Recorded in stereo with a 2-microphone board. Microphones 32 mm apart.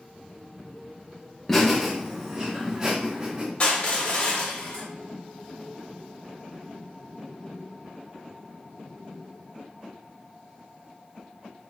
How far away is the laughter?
About 0.9 m.